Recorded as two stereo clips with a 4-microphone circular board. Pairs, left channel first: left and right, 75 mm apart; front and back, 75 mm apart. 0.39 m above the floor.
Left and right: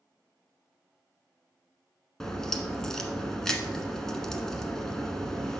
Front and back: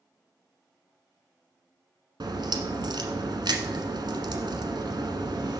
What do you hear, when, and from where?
2.2 s a crack: 175° left, 1.1 m